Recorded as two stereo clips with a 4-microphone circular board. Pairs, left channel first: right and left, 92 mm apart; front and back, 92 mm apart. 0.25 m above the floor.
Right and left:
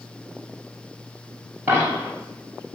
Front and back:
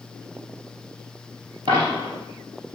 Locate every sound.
1.7 s a dropped coin: 160° left, 1.9 m